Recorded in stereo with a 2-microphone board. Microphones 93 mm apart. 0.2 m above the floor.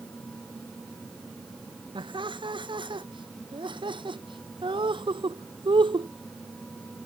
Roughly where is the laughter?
Right.